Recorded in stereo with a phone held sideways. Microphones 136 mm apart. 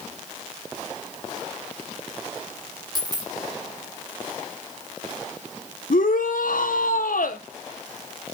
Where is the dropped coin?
30° right (ahead or behind), 1.6 m.